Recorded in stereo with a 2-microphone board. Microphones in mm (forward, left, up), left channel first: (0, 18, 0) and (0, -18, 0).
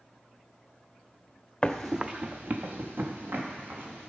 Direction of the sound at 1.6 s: 20° left (ahead or behind).